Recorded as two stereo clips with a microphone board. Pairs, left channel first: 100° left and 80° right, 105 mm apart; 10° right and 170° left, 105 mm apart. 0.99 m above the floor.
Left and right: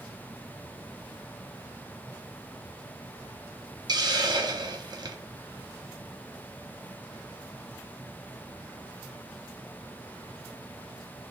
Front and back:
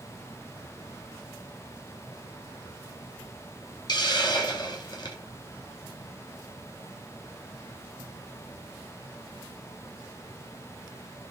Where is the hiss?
40° right, 0.6 m.